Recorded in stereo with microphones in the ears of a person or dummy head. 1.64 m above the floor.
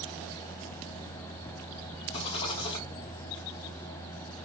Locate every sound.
2.1 s a rattle: 30° left (ahead or behind), 1.8 m